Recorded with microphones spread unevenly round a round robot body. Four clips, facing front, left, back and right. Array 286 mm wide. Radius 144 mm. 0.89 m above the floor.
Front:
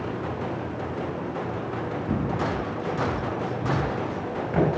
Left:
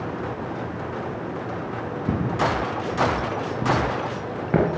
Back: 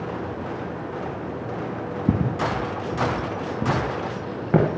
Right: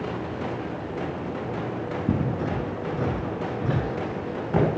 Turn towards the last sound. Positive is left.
turn(degrees=150)